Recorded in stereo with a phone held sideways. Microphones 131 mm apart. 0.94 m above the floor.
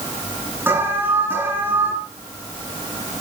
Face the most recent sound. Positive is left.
turn(degrees=-15)  # may be behind; listen again after turning